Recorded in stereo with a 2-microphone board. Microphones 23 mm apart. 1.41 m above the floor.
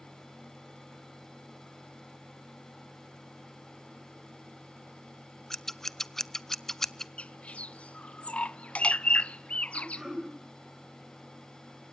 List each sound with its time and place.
5.5 s scissors: 20° left (ahead or behind), 0.6 m
7.2 s a bird: 70° left (ahead or behind), 0.5 m
9.7 s throat clearing: 20° right (ahead or behind), 7 m